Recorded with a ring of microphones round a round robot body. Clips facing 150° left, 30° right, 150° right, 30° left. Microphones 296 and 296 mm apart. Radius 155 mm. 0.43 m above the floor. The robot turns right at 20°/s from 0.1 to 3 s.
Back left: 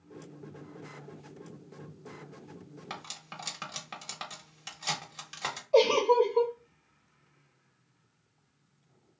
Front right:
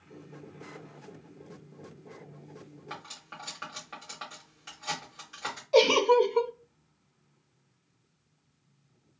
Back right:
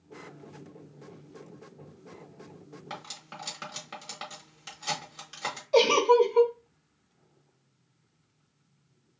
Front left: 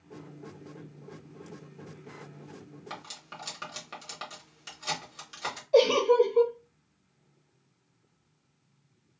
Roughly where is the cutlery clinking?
Behind left.